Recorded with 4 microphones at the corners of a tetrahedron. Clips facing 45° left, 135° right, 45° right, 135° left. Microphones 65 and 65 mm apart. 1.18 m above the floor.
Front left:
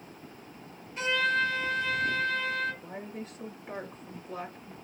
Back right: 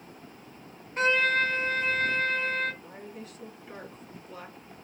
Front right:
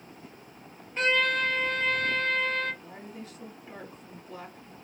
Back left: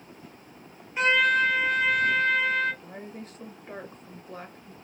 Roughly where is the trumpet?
Behind right.